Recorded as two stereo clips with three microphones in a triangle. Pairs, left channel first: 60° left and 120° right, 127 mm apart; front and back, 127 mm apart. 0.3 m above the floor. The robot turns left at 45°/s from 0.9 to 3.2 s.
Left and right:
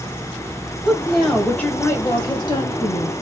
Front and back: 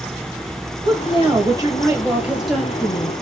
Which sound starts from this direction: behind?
A woman speaking, at 0.8 s.